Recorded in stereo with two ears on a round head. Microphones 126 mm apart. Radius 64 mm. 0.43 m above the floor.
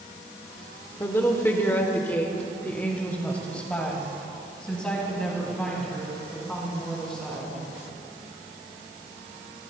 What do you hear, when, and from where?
1.0 s a woman speaking: 15° left (ahead or behind), 1.2 m; by 7.6 s 5° left (ahead or behind), 5 m